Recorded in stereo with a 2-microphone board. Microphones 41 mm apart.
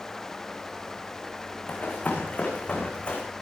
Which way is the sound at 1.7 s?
40° left (ahead or behind).